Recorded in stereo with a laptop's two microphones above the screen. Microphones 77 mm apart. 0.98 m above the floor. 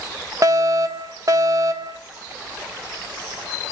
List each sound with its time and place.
0.4 s a fire alarm: 45° right (ahead or behind), 2 m